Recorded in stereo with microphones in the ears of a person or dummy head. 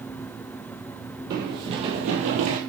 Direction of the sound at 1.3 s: 25° right (ahead or behind).